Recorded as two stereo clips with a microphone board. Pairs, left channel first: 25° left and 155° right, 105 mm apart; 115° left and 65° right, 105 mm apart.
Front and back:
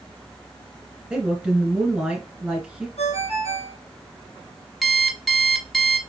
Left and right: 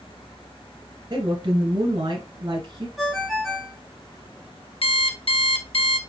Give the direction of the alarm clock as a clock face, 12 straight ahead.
8 o'clock.